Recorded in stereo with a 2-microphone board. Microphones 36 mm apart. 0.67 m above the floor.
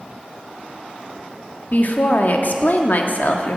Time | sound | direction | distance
1.7 | a woman speaking | 50° left (ahead or behind) | 1.0 m